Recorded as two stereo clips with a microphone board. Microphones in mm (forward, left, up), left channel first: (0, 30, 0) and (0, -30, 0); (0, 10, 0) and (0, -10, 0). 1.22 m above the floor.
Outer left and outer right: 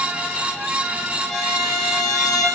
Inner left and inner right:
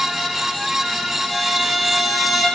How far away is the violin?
About 0.9 m.